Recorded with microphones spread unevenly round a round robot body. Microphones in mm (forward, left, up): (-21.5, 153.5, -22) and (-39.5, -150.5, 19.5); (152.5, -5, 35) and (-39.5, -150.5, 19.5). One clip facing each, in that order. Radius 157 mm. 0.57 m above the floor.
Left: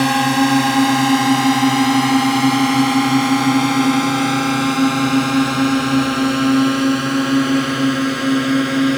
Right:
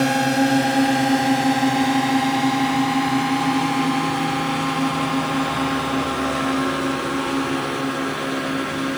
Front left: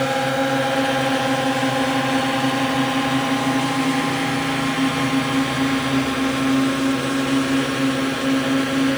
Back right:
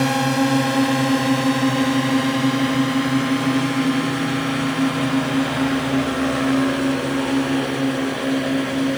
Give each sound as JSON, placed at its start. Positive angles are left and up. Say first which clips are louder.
{"t": 0.0, "sound": "a drone", "louder": "left 3 dB, back right 3 dB", "azimuth_deg": 160}